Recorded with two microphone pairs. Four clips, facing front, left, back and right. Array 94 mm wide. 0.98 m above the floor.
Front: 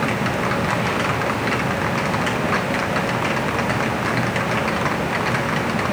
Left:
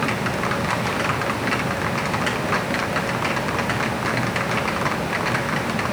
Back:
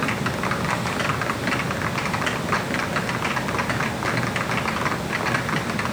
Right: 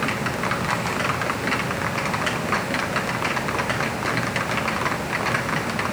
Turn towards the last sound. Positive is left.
No sound to turn to.